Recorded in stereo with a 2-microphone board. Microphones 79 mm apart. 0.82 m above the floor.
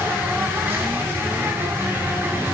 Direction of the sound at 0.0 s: 25° right (ahead or behind).